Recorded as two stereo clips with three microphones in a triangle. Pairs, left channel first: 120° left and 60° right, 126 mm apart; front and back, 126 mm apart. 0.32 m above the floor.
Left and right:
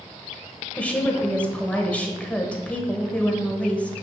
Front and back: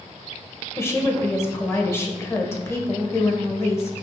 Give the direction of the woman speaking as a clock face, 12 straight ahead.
10 o'clock.